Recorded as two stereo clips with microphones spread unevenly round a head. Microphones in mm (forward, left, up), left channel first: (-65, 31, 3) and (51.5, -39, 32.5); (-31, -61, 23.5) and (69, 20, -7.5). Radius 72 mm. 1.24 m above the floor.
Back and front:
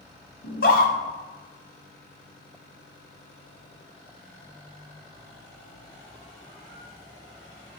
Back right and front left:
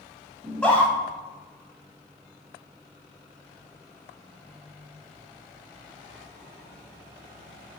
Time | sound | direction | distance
0.4 | a scream | 135° left | 2.5 m